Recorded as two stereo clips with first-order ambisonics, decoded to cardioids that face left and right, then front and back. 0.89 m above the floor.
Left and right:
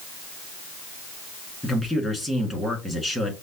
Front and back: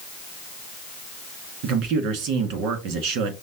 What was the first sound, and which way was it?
A man speaking, 170° left.